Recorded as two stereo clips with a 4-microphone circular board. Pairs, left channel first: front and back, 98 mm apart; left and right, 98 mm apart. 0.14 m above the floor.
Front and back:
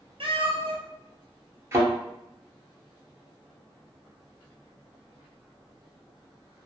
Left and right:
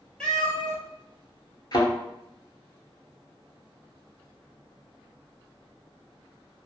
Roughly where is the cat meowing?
Behind.